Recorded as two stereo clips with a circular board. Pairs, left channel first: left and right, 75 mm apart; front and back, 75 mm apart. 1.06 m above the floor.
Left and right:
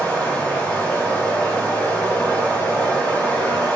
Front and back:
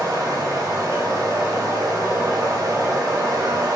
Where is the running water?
155° left, 1.4 m.